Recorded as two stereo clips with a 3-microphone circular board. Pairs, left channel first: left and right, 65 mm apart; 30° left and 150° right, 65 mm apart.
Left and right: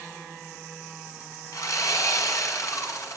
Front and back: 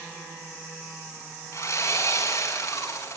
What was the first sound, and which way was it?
Sawing, 65° left.